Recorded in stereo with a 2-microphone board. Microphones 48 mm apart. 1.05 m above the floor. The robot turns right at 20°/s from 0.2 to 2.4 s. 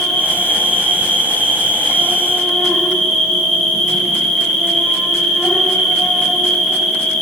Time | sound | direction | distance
0.0 | an insect | 70° left | 3 m